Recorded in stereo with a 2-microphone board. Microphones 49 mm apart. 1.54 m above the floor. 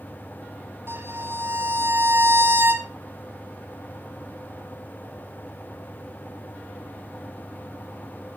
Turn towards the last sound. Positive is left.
turn(degrees=-55)  # may be behind; listen again after turning